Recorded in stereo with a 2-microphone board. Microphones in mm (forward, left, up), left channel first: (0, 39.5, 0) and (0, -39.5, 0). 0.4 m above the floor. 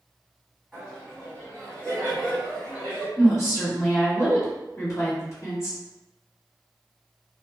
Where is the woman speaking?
40° left (ahead or behind), 1.5 m.